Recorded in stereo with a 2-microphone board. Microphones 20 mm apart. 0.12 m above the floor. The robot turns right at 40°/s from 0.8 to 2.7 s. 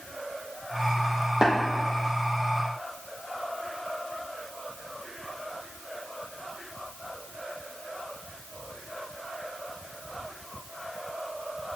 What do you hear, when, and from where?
1.4 s tapping: 40° right (ahead or behind), 3 m; by 1.5 s 35° right (ahead or behind), 3 m